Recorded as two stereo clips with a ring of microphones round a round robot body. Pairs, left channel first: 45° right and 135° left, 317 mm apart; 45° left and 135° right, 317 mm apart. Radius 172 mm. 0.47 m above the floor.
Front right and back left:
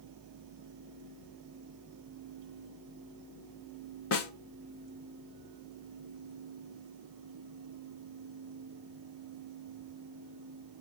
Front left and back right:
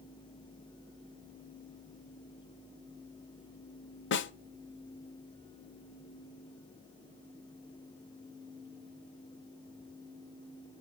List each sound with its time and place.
4.1 s a snare drum: 5° right, 1.4 m